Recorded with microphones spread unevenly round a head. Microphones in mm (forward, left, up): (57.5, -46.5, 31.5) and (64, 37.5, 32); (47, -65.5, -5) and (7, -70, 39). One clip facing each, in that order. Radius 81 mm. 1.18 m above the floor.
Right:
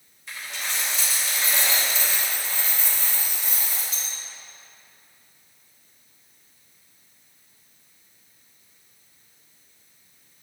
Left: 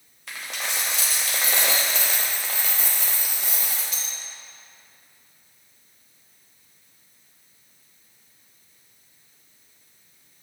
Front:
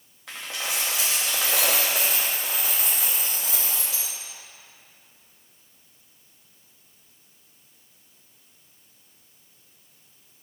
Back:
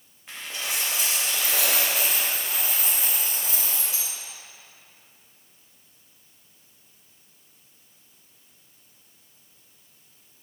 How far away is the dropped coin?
About 0.6 m.